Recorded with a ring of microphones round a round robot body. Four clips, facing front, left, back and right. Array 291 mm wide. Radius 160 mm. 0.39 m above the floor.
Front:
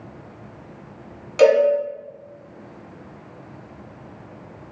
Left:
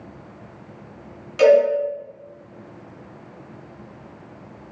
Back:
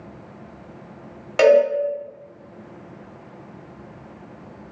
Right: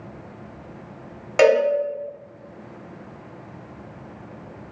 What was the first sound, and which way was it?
A cowbell, 120° right.